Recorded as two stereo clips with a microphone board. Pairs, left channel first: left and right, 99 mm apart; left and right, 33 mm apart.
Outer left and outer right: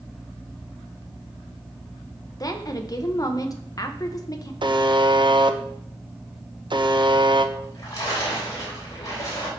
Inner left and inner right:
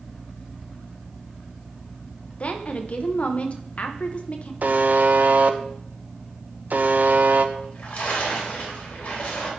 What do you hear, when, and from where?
2.4 s a woman speaking: 35° left (ahead or behind), 1.0 m
4.6 s a buzzer: 50° right (ahead or behind), 0.6 m
7.5 s a splash: 35° left (ahead or behind), 3.5 m